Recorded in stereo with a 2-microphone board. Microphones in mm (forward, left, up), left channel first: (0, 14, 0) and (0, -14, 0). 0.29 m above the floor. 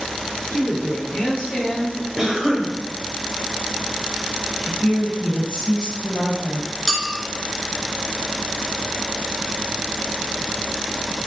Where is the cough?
15° right (ahead or behind), 0.9 m.